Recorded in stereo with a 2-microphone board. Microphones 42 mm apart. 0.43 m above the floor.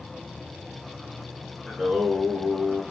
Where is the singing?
Centre (ahead or behind), 1.8 m.